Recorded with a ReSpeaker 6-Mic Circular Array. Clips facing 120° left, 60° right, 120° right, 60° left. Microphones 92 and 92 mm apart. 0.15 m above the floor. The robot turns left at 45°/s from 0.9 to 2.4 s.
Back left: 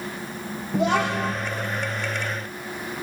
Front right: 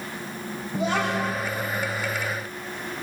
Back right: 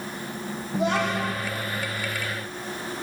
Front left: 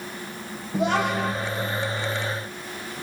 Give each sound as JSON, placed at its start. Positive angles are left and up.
{"t": 0.7, "sound": "a child speaking", "azimuth_deg": 150, "distance_m": 4.0}